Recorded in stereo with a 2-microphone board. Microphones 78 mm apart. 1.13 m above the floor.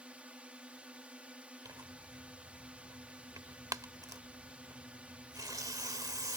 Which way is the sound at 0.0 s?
15° right (ahead or behind).